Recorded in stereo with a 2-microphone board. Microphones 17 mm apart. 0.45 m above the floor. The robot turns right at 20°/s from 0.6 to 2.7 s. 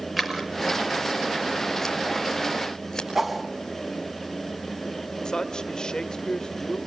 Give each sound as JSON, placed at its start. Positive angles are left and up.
{"t": 0.2, "sound": "scissors", "side_deg": -5, "distance_m": 6.0}
{"t": 3.1, "sound": "a whoosh", "side_deg": -20, "distance_m": 4.0}
{"t": 5.2, "sound": "a man speaking", "side_deg": 45, "distance_m": 1.4}